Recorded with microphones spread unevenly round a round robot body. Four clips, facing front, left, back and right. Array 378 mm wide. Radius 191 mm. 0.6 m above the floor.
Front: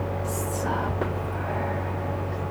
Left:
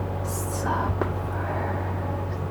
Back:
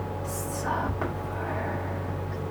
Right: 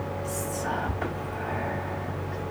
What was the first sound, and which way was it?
Whispering, 65° left.